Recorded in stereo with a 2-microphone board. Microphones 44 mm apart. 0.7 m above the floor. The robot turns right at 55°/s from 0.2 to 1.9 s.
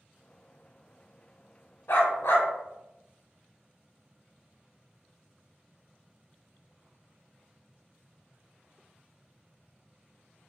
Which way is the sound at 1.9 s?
60° left (ahead or behind).